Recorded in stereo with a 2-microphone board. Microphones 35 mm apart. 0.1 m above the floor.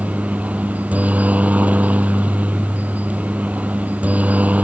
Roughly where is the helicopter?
Right.